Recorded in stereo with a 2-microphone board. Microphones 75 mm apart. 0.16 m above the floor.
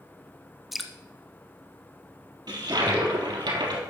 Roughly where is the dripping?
Centre.